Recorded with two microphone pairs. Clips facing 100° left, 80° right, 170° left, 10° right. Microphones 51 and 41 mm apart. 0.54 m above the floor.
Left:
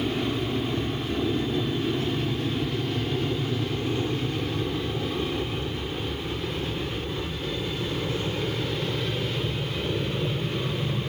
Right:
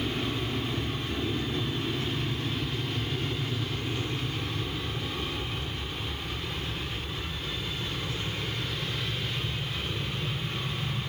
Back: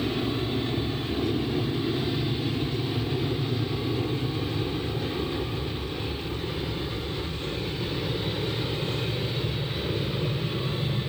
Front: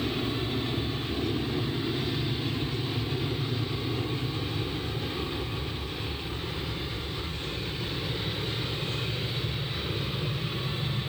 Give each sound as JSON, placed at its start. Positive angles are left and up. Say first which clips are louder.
{"t": 0.0, "sound": "an aircraft", "louder": "left 4 dB, back 2 dB", "azimuth_deg": 110}